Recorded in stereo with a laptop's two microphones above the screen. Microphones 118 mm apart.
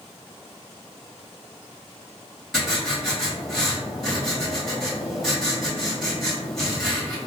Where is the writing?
Centre (ahead or behind), 1.3 m.